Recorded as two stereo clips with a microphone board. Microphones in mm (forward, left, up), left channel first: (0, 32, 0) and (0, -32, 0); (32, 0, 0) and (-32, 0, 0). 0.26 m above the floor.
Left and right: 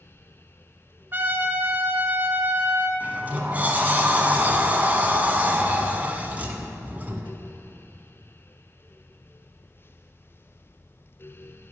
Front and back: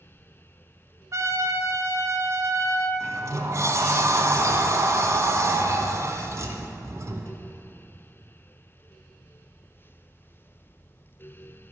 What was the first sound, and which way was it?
A trumpet, 145° right.